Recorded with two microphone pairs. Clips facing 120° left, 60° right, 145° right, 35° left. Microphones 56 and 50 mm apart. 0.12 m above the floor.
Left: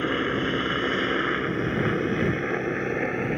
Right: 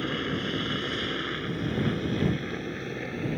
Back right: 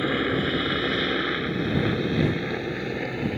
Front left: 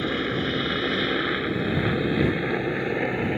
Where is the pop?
I don't hear a pop.